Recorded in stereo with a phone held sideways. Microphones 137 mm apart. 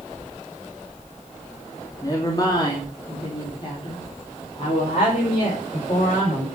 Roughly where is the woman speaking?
Left.